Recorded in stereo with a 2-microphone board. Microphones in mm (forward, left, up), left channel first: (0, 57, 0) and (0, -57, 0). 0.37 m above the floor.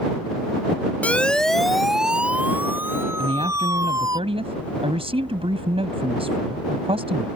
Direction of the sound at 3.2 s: 60° right (ahead or behind).